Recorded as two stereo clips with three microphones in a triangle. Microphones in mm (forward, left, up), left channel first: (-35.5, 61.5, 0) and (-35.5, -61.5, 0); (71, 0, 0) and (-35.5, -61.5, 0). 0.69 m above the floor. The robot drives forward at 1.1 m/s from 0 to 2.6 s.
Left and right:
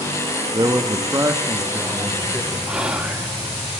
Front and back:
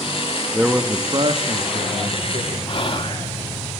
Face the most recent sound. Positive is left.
turn(degrees=-10)